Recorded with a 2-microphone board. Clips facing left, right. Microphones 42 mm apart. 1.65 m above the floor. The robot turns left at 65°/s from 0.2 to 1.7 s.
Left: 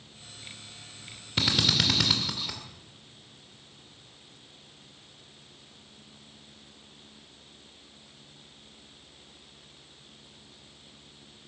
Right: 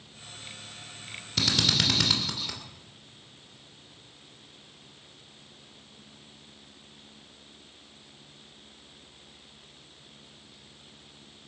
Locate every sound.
1.4 s a drill: 25° left (ahead or behind), 2.5 m; by 2.6 s 5° left (ahead or behind), 2.5 m